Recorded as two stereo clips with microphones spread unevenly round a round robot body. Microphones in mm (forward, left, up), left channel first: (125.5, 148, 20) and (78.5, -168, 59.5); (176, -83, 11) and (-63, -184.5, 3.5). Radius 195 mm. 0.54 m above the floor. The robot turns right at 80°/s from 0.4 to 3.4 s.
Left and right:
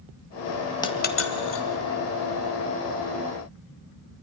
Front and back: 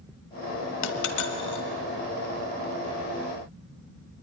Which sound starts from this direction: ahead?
A dropped coin, at 0.8 s.